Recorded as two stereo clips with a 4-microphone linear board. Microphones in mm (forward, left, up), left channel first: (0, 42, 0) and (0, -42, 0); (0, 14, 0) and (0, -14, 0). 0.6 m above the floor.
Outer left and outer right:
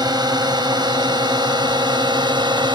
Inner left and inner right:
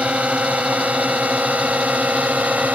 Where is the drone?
55° right (ahead or behind); by 2.8 s 65° right (ahead or behind).